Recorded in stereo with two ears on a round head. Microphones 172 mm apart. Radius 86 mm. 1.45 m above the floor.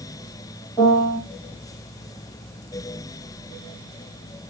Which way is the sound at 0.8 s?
10° left (ahead or behind).